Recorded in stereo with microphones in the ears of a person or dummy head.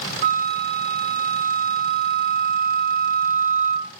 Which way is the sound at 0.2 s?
50° right (ahead or behind).